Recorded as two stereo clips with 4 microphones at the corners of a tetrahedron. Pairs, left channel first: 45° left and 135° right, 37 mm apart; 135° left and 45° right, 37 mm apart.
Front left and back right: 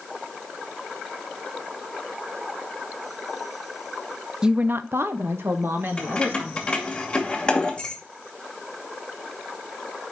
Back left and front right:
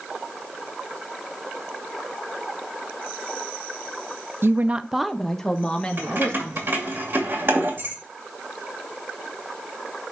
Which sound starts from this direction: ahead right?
A woman speaking, at 4.4 s.